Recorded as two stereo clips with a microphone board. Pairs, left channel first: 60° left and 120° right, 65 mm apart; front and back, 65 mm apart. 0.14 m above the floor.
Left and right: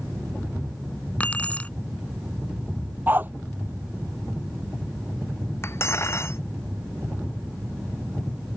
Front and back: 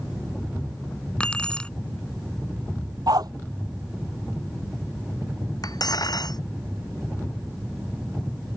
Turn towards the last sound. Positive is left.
turn(degrees=15)